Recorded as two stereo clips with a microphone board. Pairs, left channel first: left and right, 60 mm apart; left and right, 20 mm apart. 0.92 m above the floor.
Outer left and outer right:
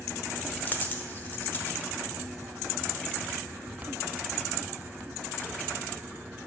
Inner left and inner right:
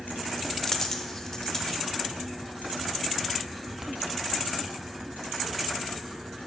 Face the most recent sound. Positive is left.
turn(degrees=35)  # may be behind; listen again after turning